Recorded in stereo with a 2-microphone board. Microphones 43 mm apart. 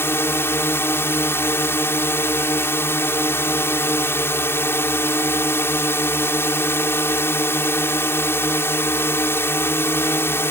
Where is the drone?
65° left (ahead or behind).